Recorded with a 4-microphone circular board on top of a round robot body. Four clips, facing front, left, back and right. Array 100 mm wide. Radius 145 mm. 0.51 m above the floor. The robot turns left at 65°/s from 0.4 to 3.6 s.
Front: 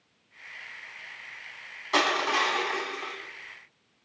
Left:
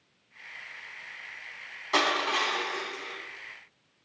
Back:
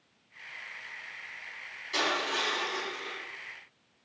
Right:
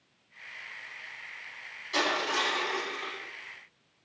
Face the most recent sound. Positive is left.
turn(degrees=-60)